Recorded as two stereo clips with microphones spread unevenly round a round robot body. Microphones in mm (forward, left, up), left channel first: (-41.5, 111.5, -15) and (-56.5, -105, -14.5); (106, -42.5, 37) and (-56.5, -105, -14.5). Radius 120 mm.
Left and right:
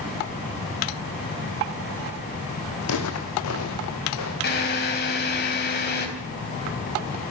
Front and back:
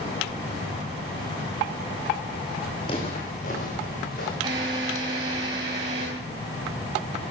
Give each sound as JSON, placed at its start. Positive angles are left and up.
{"t": 2.8, "sound": "footsteps", "azimuth_deg": 85, "distance_m": 2.5}
{"t": 4.4, "sound": "a drill", "azimuth_deg": 130, "distance_m": 3.5}